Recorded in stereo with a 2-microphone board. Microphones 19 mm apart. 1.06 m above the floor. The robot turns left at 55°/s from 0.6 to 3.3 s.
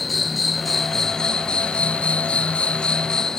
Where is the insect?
Straight behind; by 3.4 s 35° left.